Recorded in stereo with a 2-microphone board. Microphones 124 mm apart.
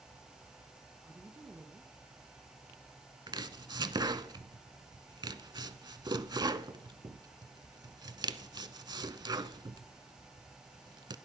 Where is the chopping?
35° right (ahead or behind), 0.7 m.